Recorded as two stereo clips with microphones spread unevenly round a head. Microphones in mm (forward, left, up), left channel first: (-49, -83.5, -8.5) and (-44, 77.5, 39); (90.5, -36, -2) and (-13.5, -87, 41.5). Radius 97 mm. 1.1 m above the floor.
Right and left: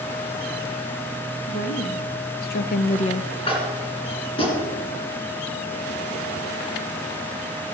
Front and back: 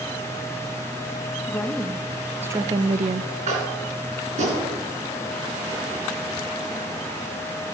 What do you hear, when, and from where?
1.5 s a woman speaking: 50° right, 1.9 m; by 3.4 s 155° right, 0.8 m
3.5 s tapping: 150° right, 3 m